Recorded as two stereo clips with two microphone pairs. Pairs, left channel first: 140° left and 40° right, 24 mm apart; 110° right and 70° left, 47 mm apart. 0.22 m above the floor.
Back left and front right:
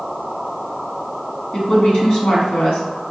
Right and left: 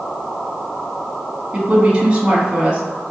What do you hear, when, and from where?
1.5 s a woman speaking: 140° left, 1.8 m